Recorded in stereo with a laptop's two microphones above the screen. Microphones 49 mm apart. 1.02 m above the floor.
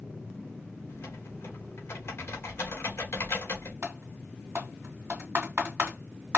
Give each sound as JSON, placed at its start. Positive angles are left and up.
{"t": 0.9, "sound": "typing on a keyboard", "side_deg": 55, "distance_m": 1.7}
{"t": 3.8, "sound": "typing on a keyboard", "side_deg": -45, "distance_m": 1.8}